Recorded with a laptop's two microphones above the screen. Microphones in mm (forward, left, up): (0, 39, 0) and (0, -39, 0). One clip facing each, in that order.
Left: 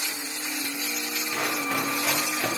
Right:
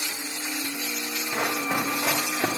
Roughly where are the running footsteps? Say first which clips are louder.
Right 2 dB; right.